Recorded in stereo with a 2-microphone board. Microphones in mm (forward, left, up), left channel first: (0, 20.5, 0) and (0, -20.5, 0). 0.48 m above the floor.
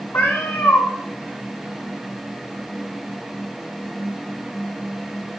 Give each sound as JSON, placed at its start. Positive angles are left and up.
{"t": 0.1, "sound": "a cat meowing", "side_deg": 80, "distance_m": 1.0}